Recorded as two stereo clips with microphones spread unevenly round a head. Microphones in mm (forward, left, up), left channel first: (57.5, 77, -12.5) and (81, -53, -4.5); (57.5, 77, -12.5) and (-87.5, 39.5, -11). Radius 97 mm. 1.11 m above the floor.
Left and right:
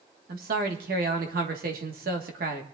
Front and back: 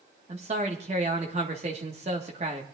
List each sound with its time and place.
0.3 s a man speaking: 105° right, 1.4 m